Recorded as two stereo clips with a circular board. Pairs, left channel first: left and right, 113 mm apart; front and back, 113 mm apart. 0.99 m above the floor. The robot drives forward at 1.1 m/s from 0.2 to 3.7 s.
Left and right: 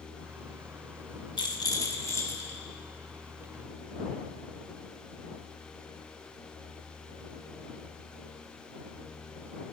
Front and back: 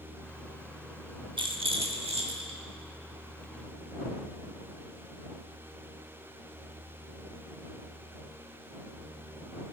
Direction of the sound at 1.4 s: 135° left.